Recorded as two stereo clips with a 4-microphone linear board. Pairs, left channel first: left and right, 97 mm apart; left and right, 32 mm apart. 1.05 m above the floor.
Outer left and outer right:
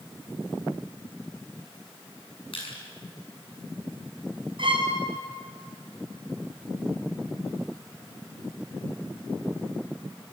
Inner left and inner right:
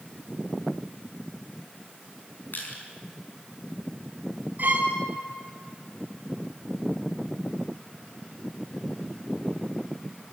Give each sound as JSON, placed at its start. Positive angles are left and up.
{"t": 2.5, "sound": "crushing", "side_deg": 65, "distance_m": 6.5}
{"t": 4.6, "sound": "a violin", "side_deg": -60, "distance_m": 4.5}